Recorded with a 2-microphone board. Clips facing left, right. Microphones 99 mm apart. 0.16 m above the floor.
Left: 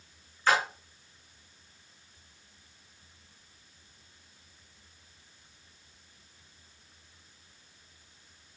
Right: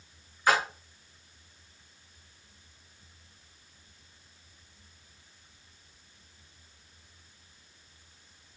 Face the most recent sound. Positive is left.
turn(degrees=-15)  # may be behind; listen again after turning